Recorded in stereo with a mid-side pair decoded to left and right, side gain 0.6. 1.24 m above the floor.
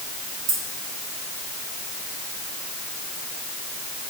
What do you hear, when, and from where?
0.5 s keys jangling: 70° right, 6 m